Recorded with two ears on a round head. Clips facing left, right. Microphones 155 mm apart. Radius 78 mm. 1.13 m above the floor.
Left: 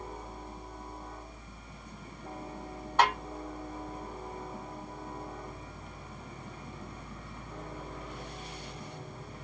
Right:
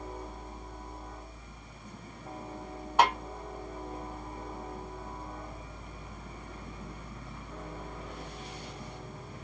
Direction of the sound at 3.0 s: 10° right (ahead or behind).